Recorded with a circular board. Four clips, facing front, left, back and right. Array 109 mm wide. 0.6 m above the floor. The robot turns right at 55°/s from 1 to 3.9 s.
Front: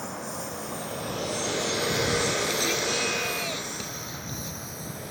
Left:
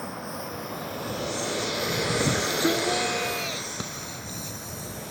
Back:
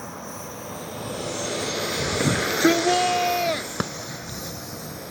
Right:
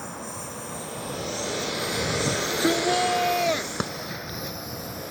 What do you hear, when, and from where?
0.0 s a lawn mower: 60° left; by 5.1 s 115° right
2.2 s a shout: 160° left; by 4.6 s 105° right
3.8 s a clap: 150° right; by 3.9 s 145° right